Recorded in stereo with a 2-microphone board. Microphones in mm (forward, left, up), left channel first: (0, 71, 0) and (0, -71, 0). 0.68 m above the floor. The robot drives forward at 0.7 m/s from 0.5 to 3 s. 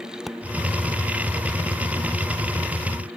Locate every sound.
0.3 s a pop: centre (ahead or behind)